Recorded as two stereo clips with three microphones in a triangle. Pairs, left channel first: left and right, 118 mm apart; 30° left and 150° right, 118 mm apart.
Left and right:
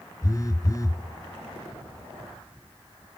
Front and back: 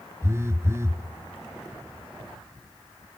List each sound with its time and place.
0.2 s a phone buzzing: 145° left, 1.0 m